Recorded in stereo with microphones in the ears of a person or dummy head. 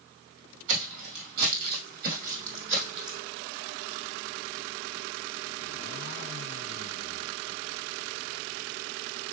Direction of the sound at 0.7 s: 65° right (ahead or behind).